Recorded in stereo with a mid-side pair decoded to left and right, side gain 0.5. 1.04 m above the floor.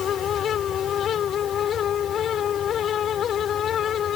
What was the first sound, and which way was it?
A fan, 55° left.